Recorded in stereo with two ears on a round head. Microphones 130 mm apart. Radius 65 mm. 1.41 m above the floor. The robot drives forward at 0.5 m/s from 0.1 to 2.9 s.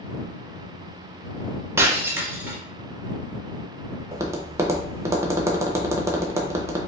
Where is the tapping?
20° right (ahead or behind), 0.6 m.